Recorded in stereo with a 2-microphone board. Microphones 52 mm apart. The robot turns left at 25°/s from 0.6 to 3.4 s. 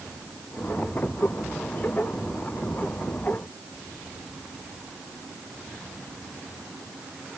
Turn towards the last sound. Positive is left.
No sound to turn to.